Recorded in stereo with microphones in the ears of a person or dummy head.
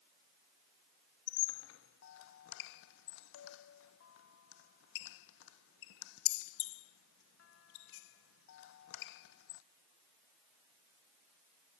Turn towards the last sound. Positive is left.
turn(degrees=75)  # may be behind; listen again after turning